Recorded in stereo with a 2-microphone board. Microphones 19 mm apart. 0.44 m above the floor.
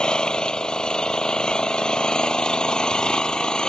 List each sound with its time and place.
0.0 s an engine running: 50° left (ahead or behind)